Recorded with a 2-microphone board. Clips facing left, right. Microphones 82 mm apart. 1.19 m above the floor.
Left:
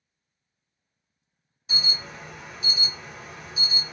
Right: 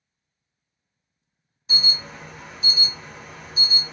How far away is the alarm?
About 1.6 m.